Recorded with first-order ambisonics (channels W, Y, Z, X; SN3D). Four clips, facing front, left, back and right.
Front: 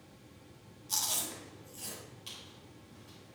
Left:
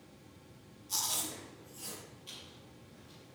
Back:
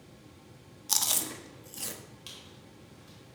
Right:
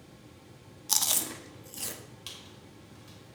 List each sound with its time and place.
0.9 s chewing: 130° right, 1.3 m
2.3 s a squeak: 105° right, 3 m